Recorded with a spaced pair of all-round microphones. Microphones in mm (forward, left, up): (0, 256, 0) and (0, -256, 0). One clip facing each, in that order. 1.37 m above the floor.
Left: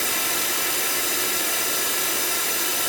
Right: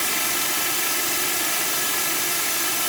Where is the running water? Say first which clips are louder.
Left 1 dB; 25° right (ahead or behind), 1.6 m.